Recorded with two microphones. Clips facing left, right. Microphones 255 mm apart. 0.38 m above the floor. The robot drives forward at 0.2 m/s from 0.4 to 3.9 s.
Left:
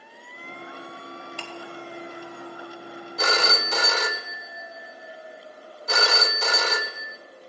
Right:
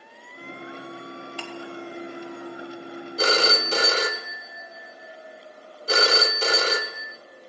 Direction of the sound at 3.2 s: 35° right (ahead or behind).